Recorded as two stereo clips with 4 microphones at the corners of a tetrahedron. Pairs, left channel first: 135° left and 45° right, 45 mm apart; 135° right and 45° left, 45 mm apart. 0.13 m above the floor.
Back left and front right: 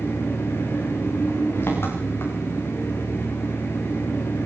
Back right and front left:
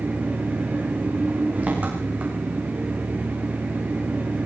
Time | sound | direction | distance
0.0 | an engine running | 100° left | 6.5 m